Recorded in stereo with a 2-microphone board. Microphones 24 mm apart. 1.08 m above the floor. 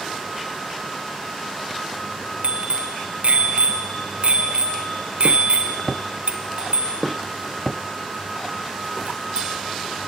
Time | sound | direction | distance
2.4 | a bicycle bell | 55° right (ahead or behind) | 3 m